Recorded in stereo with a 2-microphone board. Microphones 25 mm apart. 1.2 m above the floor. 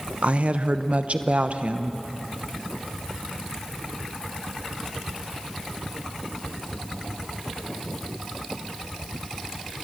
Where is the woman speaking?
65° right (ahead or behind), 0.9 m.